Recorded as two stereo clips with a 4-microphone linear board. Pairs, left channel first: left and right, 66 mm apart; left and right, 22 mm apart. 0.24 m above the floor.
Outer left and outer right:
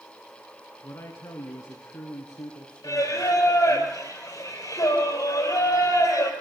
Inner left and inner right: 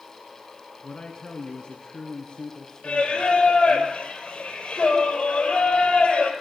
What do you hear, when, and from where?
0.8 s a man speaking: 60° left (ahead or behind), 3.5 m; by 3.8 s 75° left (ahead or behind), 6 m
2.8 s singing: 60° left (ahead or behind), 5 m